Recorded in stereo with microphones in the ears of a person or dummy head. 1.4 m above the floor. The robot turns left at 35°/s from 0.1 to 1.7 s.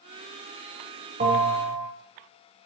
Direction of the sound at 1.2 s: 35° right (ahead or behind).